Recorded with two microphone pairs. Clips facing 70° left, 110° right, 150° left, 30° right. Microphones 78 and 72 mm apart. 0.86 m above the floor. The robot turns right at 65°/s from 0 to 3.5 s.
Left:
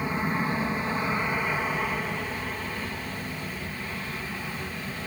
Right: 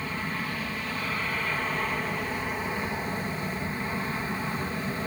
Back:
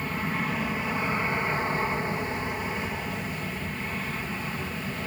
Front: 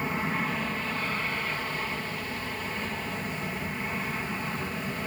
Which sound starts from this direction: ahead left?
An aircraft, at 0.0 s.